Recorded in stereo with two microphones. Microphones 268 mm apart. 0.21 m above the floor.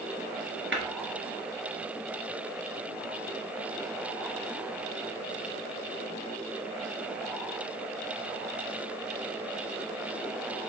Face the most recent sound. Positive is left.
turn(degrees=-45)  # may be behind; listen again after turning